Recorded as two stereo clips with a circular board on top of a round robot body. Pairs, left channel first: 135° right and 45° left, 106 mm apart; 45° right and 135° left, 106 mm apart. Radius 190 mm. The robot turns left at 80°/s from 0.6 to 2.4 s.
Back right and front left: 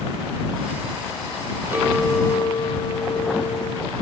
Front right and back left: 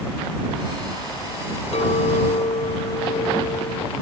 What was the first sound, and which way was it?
A clink, 25° right.